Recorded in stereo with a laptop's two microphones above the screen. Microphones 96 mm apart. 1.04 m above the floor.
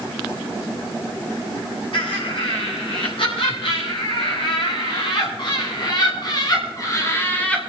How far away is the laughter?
About 9 m.